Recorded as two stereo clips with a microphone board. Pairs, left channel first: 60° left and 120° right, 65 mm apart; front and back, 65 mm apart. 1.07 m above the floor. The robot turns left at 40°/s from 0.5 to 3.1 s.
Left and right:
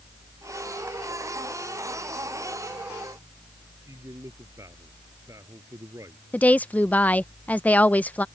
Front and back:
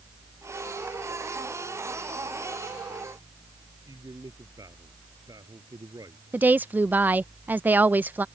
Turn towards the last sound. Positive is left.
turn(degrees=125)